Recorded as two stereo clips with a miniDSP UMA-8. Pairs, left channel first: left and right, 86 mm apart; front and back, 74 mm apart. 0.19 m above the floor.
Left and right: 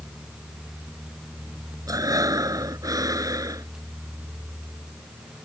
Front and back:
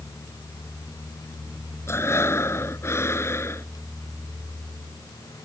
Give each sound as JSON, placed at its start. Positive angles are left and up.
{"t": 1.9, "sound": "breathing", "azimuth_deg": -50}